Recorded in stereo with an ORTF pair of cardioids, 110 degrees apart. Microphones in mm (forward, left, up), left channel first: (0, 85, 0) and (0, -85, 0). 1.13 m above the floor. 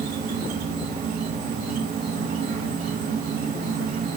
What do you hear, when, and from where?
0.0 s an insect: 55° right, 1.2 m